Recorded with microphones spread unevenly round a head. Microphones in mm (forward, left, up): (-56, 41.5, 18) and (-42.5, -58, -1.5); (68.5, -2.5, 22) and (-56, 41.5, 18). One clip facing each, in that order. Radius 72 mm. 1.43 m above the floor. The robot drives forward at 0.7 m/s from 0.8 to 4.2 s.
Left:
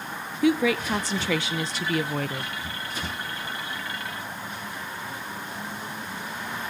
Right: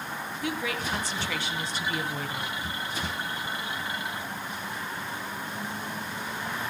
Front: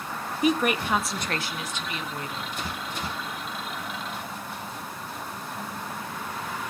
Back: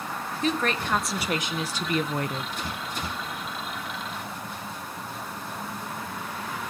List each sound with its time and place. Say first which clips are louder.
0.4 s a woman speaking: left 11 dB, front 3 dB; 60° left, 0.9 m; by 2.5 s 135° left, 1.1 m